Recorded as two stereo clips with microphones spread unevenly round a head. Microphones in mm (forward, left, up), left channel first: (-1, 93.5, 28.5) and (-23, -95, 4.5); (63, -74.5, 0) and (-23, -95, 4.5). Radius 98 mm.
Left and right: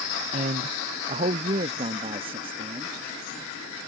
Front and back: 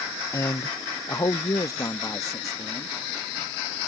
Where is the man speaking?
45° right; by 3.0 s 35° right.